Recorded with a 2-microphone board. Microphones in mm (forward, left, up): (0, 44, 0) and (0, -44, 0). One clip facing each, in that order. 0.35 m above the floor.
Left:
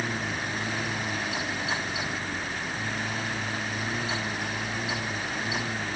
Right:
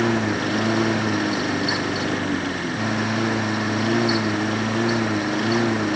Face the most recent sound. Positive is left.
turn(degrees=-85)